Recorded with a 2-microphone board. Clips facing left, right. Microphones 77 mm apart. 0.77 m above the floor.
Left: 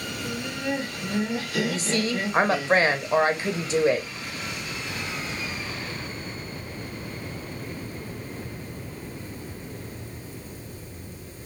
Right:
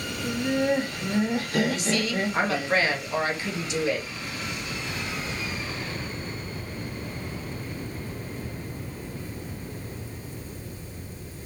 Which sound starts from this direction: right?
Laughter, at 0.2 s.